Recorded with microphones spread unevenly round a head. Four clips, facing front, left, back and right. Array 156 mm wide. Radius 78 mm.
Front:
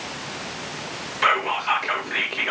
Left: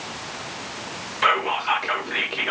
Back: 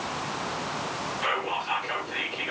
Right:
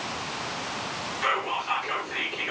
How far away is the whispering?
About 1.9 m.